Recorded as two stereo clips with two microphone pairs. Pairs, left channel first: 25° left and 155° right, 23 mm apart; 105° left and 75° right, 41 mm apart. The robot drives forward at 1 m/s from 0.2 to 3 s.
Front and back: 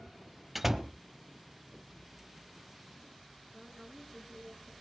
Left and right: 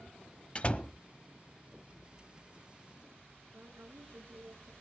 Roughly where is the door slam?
Behind left.